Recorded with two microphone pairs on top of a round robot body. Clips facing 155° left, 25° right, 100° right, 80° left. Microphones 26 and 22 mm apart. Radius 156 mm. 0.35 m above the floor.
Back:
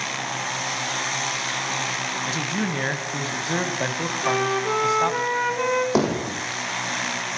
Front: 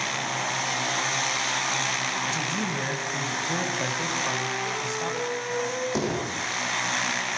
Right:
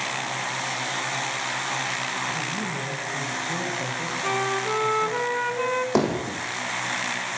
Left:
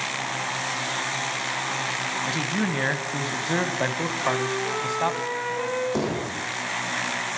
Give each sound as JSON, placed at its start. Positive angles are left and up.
{"t": 2.2, "sound": "a man speaking", "azimuth_deg": 95, "distance_m": 3.5}
{"t": 4.2, "sound": "a flute", "azimuth_deg": -170, "distance_m": 2.0}
{"t": 6.0, "sound": "hammering", "azimuth_deg": -150, "distance_m": 7.0}